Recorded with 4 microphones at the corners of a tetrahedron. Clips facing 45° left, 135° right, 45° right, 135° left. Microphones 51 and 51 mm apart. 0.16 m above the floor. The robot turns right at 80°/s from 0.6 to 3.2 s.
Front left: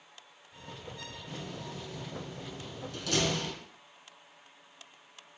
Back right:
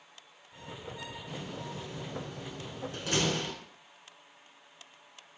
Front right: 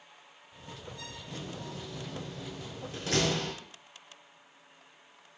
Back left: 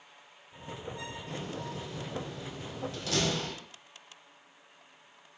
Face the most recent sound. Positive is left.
turn(degrees=-70)